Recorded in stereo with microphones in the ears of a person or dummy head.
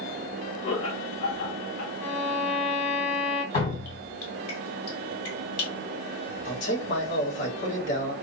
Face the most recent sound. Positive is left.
turn(degrees=65)  # may be behind; listen again after turning